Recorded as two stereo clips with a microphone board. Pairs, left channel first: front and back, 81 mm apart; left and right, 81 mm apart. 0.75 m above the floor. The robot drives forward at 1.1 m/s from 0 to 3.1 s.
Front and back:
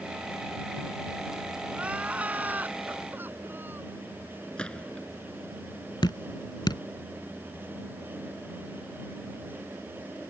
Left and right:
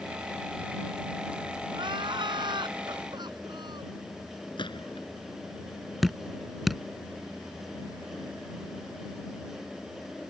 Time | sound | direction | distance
1.7 | crying | 105° right | ?
4.6 | a gunshot | 80° left | ?
6.0 | dripping | straight ahead | ?